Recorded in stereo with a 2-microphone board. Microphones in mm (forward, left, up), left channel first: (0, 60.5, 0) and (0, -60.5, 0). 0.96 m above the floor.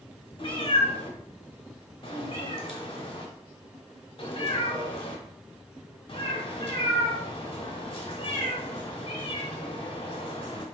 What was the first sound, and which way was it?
A cat meowing, 50° left (ahead or behind).